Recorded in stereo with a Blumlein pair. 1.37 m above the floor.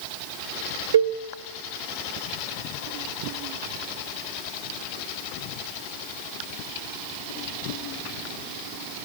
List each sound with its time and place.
0.9 s a cowbell: 60° right, 0.6 m